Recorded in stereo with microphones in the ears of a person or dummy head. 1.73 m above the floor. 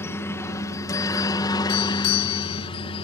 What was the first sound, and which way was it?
A helicopter, 10° left (ahead or behind).